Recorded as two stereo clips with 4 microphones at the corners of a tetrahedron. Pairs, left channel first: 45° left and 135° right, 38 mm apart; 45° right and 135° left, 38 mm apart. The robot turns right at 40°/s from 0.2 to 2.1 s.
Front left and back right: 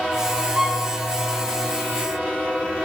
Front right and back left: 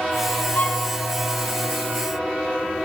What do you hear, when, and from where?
0.6 s a violin: 55° right, 1.9 m; by 0.9 s 40° right, 1.9 m